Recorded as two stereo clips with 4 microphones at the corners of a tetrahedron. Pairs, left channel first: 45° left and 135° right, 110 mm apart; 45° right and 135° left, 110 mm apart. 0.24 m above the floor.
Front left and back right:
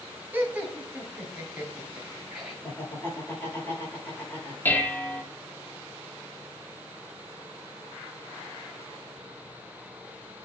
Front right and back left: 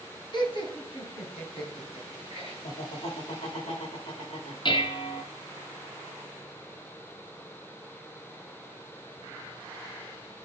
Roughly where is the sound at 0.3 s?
Ahead right.